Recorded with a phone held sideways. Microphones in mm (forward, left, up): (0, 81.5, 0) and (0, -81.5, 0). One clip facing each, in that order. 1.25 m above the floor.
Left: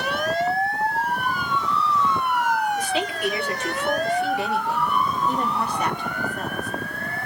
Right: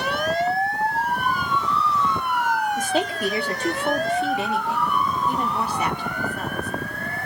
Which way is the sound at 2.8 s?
45° right (ahead or behind).